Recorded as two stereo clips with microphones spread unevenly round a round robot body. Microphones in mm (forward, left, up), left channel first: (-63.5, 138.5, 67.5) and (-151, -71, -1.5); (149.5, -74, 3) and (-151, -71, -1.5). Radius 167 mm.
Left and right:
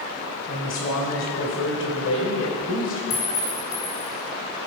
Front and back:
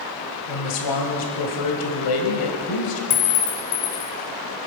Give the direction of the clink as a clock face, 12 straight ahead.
12 o'clock.